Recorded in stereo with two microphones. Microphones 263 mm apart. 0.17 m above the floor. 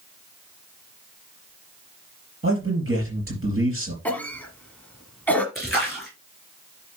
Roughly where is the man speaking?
Right.